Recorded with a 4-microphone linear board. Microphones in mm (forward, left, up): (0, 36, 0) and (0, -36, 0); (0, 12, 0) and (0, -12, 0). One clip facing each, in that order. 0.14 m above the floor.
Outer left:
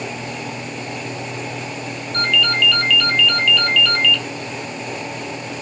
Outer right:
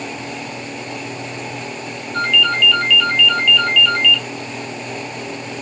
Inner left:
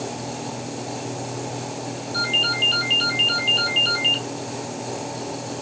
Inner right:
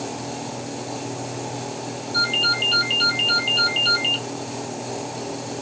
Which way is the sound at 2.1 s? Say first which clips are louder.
Outer right 2 dB, inner right 1 dB; 5° right (ahead or behind).